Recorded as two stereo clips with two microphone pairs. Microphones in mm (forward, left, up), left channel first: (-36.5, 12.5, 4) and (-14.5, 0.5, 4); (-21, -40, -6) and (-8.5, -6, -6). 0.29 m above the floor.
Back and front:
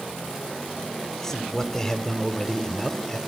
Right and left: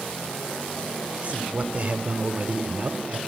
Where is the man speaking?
100° left, 1.1 m.